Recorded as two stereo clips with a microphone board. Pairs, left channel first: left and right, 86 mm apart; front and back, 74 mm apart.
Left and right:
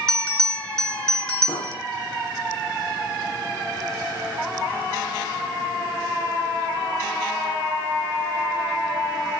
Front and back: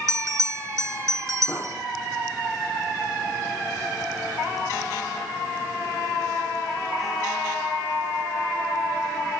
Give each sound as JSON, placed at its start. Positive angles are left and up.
{"t": 0.1, "sound": "a bell", "azimuth_deg": 170, "distance_m": 1.9}
{"t": 1.5, "sound": "an explosion", "azimuth_deg": 65, "distance_m": 4.5}